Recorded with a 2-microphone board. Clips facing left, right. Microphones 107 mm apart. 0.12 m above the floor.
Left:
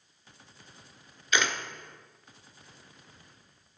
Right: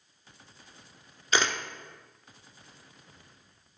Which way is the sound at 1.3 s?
35° right (ahead or behind).